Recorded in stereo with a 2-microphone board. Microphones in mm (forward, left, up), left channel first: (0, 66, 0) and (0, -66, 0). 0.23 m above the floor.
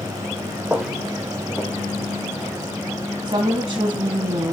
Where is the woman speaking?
40° right (ahead or behind), 2 m.